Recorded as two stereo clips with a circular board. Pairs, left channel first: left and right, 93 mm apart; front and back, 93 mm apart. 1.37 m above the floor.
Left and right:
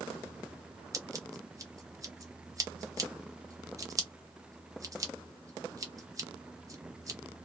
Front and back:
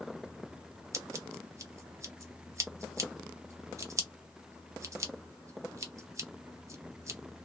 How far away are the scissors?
About 0.6 m.